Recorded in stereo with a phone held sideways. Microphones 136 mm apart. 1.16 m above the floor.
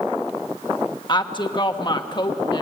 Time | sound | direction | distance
1.1 | a woman speaking | 35° left (ahead or behind) | 1.3 m